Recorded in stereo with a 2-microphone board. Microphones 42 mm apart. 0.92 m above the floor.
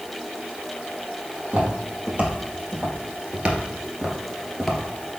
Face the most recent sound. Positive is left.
turn(degrees=5)  # may be behind; listen again after turning